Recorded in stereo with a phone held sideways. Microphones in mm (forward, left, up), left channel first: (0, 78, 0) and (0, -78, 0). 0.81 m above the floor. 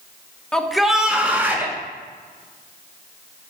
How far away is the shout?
About 0.9 m.